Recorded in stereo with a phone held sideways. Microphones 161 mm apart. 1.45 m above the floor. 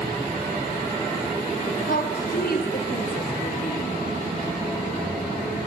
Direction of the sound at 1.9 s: 70° left (ahead or behind).